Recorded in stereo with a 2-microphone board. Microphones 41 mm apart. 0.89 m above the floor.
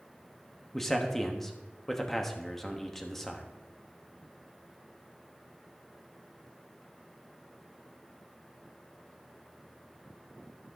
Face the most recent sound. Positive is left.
turn(degrees=5)  # may be behind; listen again after turning